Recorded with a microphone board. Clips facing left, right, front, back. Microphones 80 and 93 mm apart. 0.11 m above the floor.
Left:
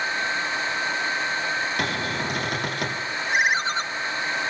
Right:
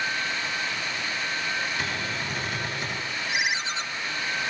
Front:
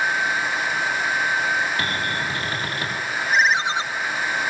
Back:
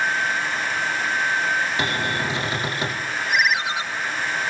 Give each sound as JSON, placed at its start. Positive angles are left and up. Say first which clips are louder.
{"t": 1.8, "sound": "a cupboard door", "louder": "left 4 dB, back 1 dB", "azimuth_deg": 110, "distance_m": 5.0}
{"t": 3.3, "sound": "a ringtone", "louder": "left 7 dB, front 3 dB", "azimuth_deg": 55, "distance_m": 0.9}